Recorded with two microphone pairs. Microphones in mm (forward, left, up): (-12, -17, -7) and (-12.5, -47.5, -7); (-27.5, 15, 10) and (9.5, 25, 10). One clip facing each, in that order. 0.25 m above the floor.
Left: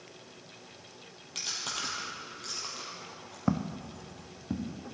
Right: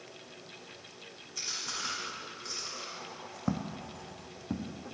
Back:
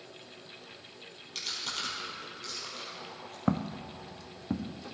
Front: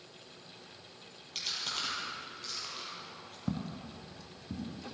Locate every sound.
1.4 s chewing: 105° left, 5 m
3.5 s footsteps: 165° left, 0.8 m; by 4.7 s 170° right, 2 m